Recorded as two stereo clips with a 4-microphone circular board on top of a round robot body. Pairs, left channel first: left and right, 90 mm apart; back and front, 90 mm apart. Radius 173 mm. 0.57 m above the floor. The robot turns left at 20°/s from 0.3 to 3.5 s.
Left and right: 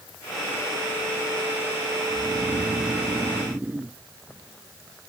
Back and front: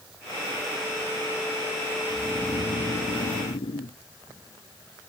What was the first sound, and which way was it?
Snoring, 140° right.